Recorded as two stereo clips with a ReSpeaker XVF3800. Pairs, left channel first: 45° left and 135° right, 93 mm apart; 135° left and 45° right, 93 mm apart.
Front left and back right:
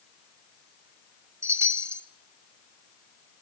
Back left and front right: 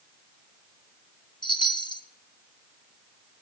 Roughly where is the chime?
Behind.